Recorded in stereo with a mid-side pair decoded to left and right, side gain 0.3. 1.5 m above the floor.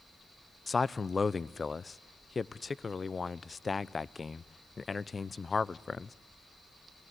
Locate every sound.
0.7 s a man speaking: 40° left, 0.7 m